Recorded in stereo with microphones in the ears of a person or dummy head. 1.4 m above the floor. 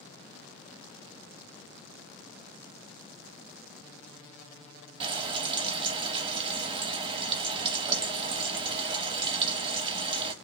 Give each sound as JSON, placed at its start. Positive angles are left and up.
{"t": 5.0, "sound": "frying", "side_deg": -30, "distance_m": 0.6}